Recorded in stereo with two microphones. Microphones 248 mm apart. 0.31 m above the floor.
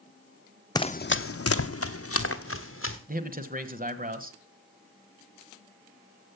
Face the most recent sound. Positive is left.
turn(degrees=-35)  # may be behind; listen again after turning